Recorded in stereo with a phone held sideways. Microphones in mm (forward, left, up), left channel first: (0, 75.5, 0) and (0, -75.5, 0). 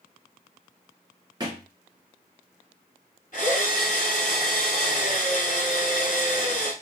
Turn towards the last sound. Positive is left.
turn(degrees=55)  # may be behind; listen again after turning